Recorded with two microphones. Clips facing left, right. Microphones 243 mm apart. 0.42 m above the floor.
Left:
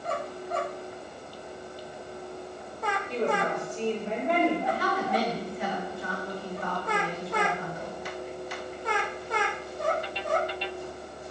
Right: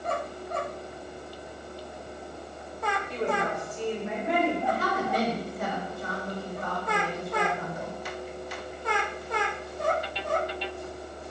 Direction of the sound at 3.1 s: 40° left (ahead or behind).